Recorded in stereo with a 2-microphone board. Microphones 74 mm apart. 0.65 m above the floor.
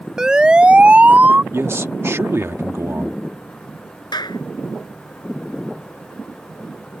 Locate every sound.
0.2 s a siren: 10° right (ahead or behind); by 1.4 s 25° right (ahead or behind)
1.5 s a man speaking: 40° right (ahead or behind)
4.1 s a clap: 85° left